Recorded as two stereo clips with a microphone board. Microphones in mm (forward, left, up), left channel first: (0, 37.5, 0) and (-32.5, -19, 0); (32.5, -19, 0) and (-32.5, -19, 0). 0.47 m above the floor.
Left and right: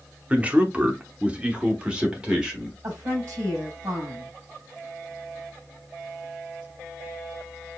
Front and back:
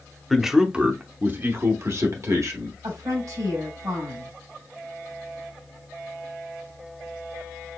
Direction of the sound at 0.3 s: 90° right.